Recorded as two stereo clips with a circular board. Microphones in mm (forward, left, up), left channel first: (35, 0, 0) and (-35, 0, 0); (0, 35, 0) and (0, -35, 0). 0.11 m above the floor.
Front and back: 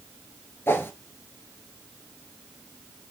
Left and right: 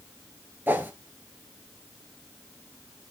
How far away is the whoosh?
About 1.1 m.